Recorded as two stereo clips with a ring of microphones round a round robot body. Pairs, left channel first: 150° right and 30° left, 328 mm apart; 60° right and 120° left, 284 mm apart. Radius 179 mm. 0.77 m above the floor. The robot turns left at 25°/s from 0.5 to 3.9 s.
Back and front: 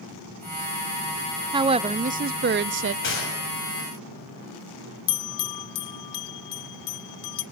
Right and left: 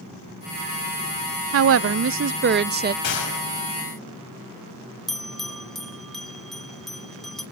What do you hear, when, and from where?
1.5 s a woman speaking: 105° left, 0.5 m; by 2.9 s 70° left, 0.5 m
3.0 s a gunshot: 95° right, 6.5 m; by 3.4 s 105° right, 6.5 m
5.1 s a bell: 150° right, 1.3 m